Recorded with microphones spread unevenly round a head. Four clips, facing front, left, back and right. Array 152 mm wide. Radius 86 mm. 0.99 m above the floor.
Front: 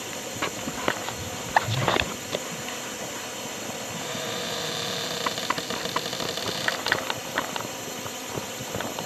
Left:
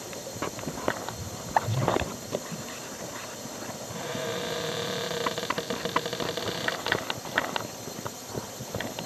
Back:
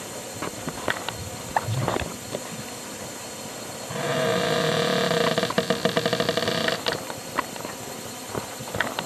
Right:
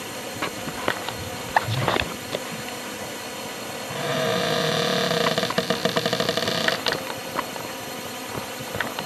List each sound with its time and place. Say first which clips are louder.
0.0 s a drone: right 4 dB, front 1 dB; 70° right
3.9 s a cupboard door: right 9 dB, back 13 dB; 135° right